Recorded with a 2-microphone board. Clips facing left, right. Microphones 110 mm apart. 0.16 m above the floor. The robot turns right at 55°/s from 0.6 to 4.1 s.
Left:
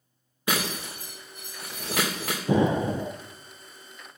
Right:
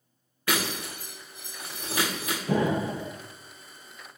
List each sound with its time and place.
0.5 s breaking glass: 20° left (ahead or behind), 3 m; by 2.4 s 60° left (ahead or behind), 3 m
2.5 s an explosion: 20° left, 0.6 m; by 3.1 s 55° left, 0.6 m